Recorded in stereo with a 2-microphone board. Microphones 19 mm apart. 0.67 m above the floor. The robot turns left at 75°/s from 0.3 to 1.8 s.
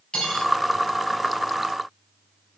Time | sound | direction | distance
0.1 | cutlery clinking | 55° left (ahead or behind) | 3.5 m